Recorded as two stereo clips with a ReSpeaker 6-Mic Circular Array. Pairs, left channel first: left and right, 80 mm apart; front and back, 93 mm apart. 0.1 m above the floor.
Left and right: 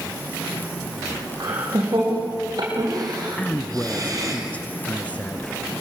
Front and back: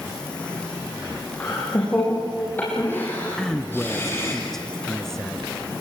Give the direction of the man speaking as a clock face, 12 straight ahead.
10 o'clock.